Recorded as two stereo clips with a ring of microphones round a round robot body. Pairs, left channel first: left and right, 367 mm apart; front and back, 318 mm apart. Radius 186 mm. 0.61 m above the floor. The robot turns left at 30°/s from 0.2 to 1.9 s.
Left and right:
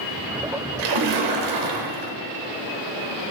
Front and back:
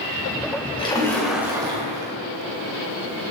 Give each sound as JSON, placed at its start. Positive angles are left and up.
{"t": 0.8, "sound": "a splash", "azimuth_deg": -75, "distance_m": 3.0}